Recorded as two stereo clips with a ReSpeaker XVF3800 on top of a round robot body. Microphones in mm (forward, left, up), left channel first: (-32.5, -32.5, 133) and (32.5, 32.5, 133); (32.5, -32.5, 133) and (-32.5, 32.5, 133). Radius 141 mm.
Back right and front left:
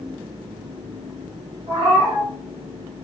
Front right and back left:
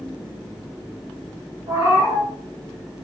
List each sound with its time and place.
1.7 s a cat meowing: 85° left, 1.8 m